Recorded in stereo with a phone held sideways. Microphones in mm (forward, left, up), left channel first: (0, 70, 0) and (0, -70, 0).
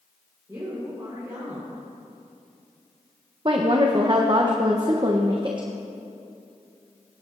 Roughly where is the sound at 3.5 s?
Right.